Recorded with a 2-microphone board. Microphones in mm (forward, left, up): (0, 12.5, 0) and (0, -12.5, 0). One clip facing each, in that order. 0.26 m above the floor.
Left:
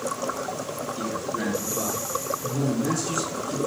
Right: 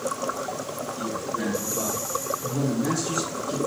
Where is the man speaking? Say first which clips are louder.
Even; 30° left (ahead or behind), 1.1 m; by 3.6 s 15° right (ahead or behind), 2.5 m.